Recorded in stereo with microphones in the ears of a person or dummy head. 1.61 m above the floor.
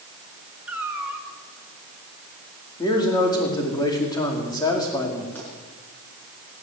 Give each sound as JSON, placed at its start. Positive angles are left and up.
{"t": 0.7, "sound": "a cat meowing", "side_deg": -10, "distance_m": 3.0}
{"t": 2.8, "sound": "a man speaking", "side_deg": 20, "distance_m": 4.5}
{"t": 5.3, "sound": "a pop", "side_deg": 10, "distance_m": 8.5}